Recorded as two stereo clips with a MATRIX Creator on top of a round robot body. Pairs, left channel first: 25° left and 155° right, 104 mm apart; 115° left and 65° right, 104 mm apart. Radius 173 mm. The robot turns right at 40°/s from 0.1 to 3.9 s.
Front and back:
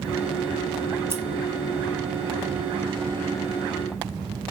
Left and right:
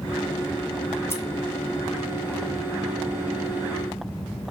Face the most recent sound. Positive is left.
turn(degrees=-95)